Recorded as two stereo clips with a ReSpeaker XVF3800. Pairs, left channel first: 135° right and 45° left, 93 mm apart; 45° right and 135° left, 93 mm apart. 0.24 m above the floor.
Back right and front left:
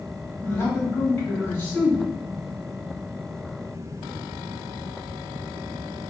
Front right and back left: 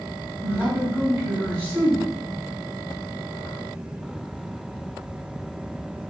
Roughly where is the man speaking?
Behind.